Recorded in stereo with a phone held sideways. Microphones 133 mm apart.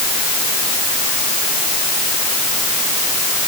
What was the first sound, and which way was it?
Only background noise.